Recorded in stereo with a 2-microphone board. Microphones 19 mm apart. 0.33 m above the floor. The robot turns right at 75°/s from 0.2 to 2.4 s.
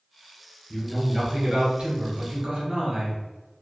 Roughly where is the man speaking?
Behind.